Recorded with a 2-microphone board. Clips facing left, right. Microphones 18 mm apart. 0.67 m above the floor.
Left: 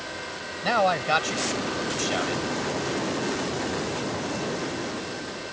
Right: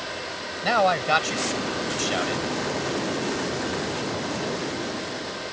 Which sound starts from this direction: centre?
A man speaking, at 0.6 s.